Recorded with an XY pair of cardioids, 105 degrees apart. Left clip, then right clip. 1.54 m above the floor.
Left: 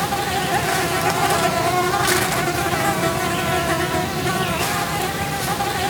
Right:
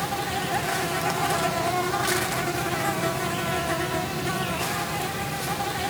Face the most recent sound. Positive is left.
turn(degrees=40)